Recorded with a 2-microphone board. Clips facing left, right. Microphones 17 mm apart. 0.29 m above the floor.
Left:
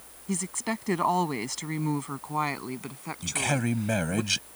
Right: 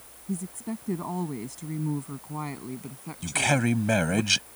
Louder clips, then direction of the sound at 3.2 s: Right 4 dB; 20° right (ahead or behind).